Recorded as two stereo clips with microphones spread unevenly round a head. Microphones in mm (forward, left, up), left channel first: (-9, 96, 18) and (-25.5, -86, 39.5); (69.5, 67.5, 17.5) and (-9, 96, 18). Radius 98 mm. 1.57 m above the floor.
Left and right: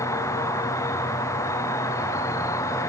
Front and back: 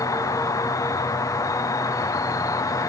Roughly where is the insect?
Ahead.